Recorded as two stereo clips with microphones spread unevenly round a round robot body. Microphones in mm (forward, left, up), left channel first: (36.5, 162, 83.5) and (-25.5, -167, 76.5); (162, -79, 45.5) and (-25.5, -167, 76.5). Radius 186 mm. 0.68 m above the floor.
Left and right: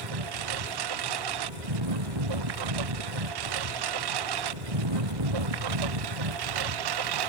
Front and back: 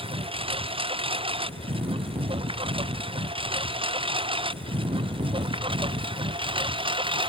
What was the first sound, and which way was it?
A lawn mower, 90° right.